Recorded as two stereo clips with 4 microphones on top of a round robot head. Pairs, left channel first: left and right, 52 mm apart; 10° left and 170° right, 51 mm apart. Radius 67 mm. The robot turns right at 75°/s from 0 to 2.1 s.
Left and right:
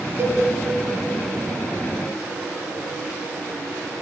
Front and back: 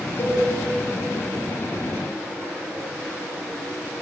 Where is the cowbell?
45° right, 3 m; by 0.4 s 25° right, 3 m.